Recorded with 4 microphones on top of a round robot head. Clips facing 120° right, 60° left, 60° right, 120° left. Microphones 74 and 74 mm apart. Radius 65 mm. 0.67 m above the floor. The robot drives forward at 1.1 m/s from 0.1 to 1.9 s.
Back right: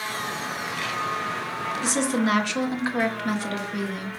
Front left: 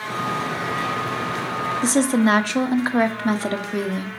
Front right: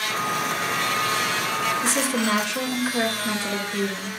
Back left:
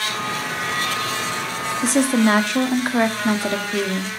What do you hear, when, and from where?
1.8 s a woman speaking: 95° left, 1.1 m; by 4.1 s 100° left, 1.2 m